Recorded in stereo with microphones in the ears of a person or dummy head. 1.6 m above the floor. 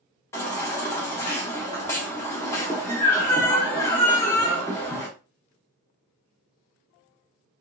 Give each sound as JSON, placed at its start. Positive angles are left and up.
{"t": 0.3, "sound": "a baby crying", "side_deg": 15, "distance_m": 0.8}